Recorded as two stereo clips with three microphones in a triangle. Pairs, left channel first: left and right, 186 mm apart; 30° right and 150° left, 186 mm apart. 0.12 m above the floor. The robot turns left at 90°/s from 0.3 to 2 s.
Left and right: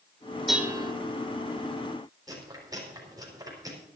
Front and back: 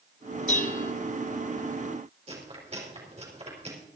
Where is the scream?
I don't hear a scream.